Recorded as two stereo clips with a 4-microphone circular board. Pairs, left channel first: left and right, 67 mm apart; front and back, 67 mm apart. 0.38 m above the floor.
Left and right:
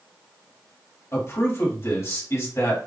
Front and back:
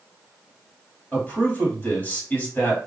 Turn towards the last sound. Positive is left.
turn(degrees=55)